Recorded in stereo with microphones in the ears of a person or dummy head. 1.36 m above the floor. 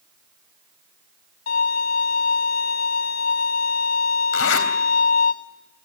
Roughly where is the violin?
Left.